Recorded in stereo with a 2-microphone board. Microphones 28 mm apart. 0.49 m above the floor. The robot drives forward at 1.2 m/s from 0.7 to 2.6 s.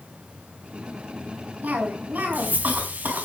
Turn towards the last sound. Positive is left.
turn(degrees=-75)  # may be behind; listen again after turning